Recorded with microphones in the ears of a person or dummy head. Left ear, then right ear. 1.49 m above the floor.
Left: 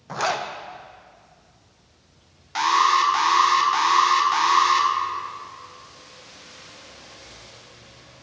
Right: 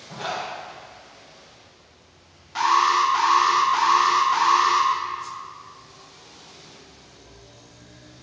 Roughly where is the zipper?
Left.